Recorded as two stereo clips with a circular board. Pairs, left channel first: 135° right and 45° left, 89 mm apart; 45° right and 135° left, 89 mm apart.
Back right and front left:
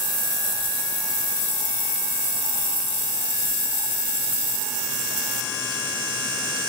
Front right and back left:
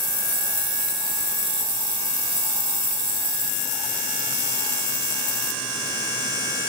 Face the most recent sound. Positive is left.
No sound to turn to.